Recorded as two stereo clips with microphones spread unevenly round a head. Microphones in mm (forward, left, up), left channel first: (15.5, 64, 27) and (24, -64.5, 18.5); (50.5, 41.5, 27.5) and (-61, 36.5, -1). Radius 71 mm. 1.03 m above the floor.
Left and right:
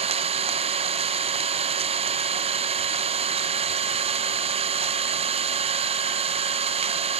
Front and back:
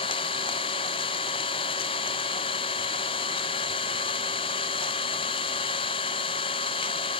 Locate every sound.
0.0 s an engine running: 55° right, 0.7 m